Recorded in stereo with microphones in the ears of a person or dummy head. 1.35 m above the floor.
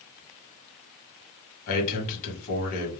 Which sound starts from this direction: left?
A man speaking, at 1.7 s.